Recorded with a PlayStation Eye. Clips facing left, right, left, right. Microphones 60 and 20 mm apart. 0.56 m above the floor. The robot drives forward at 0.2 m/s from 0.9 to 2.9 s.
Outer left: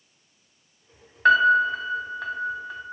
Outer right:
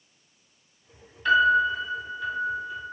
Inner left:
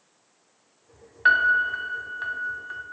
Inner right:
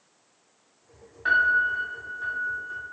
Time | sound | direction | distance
1.2 | a piano | 55° left (ahead or behind) | 0.6 m